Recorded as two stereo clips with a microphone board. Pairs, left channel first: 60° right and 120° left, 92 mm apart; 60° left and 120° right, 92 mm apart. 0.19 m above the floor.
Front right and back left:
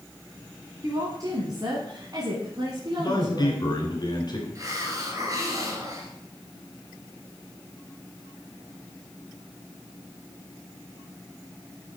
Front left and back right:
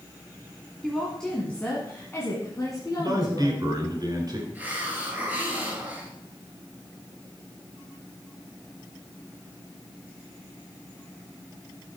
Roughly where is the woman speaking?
Behind left.